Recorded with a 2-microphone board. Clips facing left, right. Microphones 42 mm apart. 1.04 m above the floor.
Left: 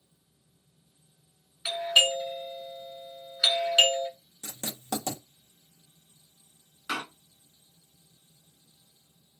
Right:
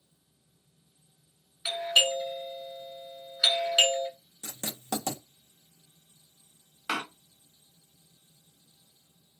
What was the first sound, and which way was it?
A doorbell, centre (ahead or behind).